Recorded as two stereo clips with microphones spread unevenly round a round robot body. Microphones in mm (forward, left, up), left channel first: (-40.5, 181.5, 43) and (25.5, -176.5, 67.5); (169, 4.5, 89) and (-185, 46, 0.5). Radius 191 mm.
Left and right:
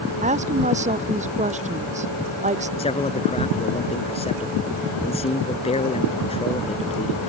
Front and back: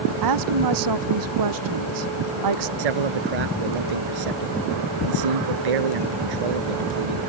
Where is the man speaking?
175° left.